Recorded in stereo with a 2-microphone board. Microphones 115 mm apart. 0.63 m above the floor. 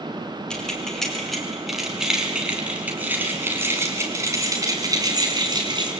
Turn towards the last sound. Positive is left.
turn(degrees=-40)  # may be behind; listen again after turning